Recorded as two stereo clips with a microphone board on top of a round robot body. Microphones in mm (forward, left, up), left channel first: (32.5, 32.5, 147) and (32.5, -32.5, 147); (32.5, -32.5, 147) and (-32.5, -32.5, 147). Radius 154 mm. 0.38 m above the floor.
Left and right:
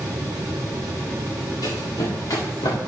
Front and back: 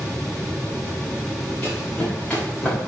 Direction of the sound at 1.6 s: 75° left.